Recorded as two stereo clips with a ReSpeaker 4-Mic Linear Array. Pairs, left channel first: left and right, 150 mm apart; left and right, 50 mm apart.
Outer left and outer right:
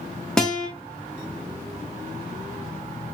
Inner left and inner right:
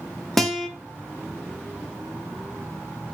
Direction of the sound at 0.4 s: 5° left (ahead or behind).